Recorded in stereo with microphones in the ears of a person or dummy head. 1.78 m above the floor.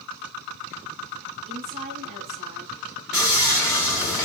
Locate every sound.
1.5 s a woman speaking: 50° right (ahead or behind), 2.5 m
3.1 s sawing: centre (ahead or behind), 1.6 m